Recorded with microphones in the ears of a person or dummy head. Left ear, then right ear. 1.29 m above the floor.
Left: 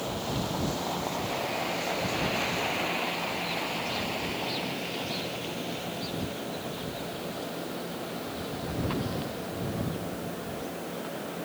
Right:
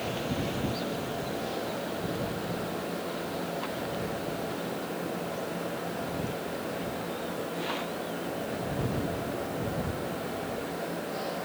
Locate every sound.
Only background noise.